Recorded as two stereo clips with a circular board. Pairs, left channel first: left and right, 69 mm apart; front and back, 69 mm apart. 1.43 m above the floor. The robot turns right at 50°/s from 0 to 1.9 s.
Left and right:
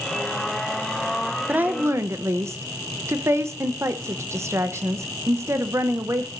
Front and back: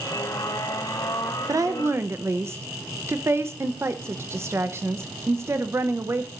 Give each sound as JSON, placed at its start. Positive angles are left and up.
{"t": 1.5, "sound": "a woman speaking", "azimuth_deg": -155, "distance_m": 0.8}